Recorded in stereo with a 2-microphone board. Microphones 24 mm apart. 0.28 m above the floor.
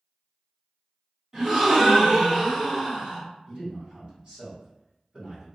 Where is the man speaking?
45° right (ahead or behind), 1.6 m.